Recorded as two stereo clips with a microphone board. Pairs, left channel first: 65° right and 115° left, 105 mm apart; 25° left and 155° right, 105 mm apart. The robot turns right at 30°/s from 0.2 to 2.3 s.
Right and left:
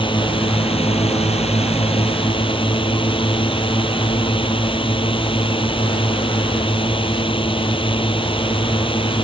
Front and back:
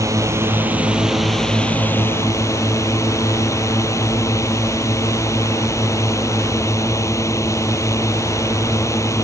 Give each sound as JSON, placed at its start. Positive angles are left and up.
{"t": 0.0, "sound": "a drone", "azimuth_deg": -100}